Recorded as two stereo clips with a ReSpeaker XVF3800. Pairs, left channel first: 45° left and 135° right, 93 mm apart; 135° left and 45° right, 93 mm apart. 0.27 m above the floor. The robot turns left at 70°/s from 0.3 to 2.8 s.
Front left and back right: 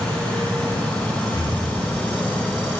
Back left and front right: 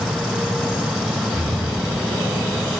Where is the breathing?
10° left, 3 m; by 1.6 s 10° right, 3 m.